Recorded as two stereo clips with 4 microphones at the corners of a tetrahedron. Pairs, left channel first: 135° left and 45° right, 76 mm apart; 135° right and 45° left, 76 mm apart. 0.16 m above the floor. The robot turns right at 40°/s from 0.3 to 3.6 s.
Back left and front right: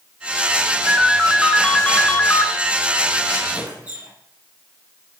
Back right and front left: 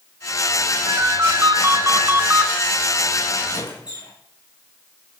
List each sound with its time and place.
0.9 s a ringtone: 30° left, 1.3 m; by 2.5 s 95° left, 1.3 m
3.5 s a squeak: 120° right, 7.5 m; by 4.1 s 115° right, 7.5 m